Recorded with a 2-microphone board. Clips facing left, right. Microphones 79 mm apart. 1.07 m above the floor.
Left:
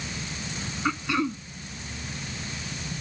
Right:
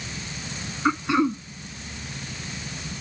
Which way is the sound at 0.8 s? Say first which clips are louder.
Right 5 dB; 20° right (ahead or behind).